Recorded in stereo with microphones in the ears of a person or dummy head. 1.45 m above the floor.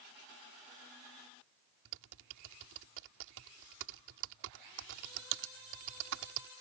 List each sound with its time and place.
1.9 s typing on a keyboard: 65° right (ahead or behind)